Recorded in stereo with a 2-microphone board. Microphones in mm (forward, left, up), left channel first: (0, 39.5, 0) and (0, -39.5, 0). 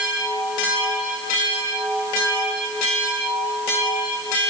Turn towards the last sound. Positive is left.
No sound to turn to.